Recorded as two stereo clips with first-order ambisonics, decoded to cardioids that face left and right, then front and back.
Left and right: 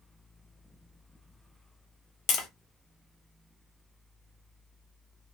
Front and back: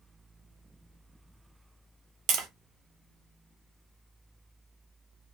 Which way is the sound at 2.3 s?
135° left.